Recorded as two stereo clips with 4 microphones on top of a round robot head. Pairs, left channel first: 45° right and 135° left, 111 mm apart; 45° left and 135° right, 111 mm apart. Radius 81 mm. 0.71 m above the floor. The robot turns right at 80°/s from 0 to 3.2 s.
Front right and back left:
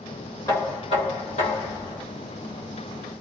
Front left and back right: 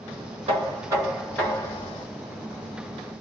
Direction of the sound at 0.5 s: 110° right.